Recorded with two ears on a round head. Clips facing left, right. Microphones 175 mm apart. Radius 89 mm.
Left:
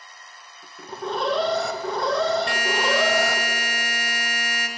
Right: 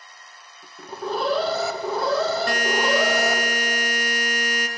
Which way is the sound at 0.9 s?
Centre (ahead or behind).